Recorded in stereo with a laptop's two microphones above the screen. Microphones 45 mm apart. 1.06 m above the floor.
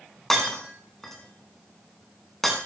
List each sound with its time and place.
0.3 s breaking glass: 5° left (ahead or behind), 6 m